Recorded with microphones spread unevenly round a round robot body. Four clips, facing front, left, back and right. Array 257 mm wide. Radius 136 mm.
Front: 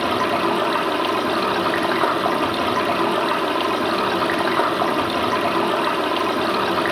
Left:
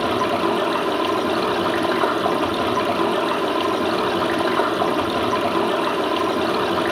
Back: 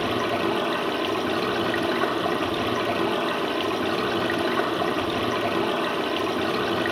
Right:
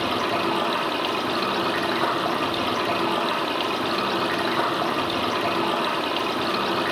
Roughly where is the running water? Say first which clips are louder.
Left 4 dB, front 4 dB; ahead left.